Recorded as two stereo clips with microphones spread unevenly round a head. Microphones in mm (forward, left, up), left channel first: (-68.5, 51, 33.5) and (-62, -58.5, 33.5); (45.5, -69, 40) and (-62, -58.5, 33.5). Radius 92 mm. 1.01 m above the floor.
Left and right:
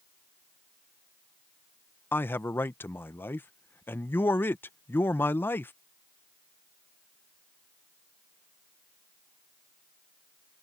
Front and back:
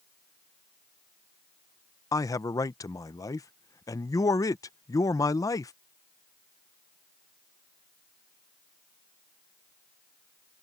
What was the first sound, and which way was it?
A man speaking, 35° left.